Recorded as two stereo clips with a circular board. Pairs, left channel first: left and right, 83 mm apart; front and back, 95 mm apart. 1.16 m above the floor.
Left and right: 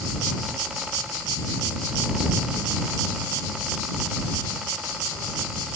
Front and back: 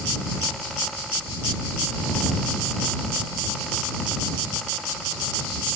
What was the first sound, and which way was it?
Only background noise.